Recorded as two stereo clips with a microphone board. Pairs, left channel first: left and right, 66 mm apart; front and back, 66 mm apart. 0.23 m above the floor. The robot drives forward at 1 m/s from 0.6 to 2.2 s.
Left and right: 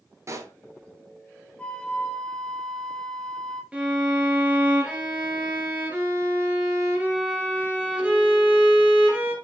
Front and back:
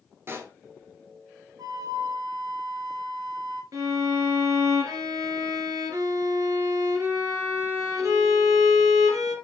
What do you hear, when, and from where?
0.3 s a pop: 130° right, 1.5 m
1.6 s a flute: 160° left, 1.1 m; by 3.6 s 170° left, 1.7 m
3.7 s a violin: 160° right, 3 m